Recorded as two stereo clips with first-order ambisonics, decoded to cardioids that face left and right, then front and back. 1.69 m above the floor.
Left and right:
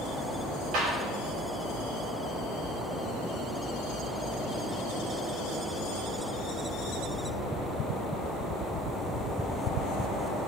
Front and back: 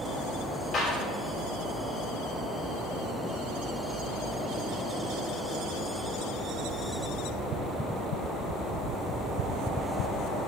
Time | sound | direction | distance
0.7 | a clap | 70° right | 4 m